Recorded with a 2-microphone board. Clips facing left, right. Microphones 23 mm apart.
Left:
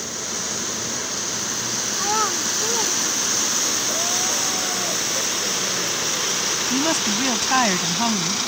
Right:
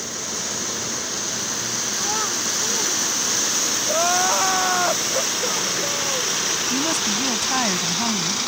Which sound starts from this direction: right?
Crying, at 3.9 s.